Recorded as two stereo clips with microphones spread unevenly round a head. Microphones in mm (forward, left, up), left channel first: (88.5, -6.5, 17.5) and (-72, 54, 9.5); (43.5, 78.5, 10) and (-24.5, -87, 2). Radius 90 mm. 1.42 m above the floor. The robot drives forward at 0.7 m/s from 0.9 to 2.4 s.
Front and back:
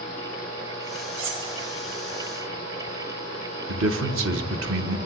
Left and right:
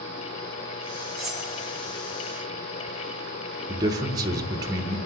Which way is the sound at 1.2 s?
155° left.